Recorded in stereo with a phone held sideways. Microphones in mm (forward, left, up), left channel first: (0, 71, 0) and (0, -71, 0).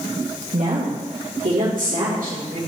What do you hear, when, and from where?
0.5 s a woman speaking: 75° right (ahead or behind), 1.7 m; by 2.6 s 80° right, 3.5 m